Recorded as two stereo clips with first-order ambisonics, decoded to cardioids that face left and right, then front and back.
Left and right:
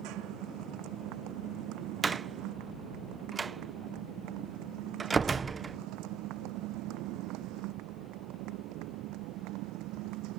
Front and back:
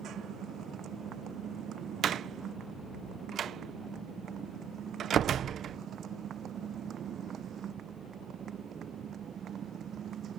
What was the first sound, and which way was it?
A motorcycle, 125° right.